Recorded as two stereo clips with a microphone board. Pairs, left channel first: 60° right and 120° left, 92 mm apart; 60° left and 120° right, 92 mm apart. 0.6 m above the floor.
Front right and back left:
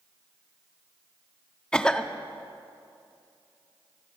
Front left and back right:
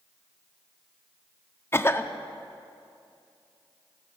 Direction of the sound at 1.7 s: 15° left.